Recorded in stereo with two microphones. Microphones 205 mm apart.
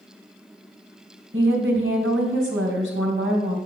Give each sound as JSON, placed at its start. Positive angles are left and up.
{"t": 1.3, "sound": "a woman speaking", "side_deg": -70, "distance_m": 2.5}